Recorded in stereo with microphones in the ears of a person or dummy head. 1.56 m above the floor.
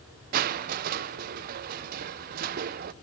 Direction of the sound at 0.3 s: 45° right (ahead or behind).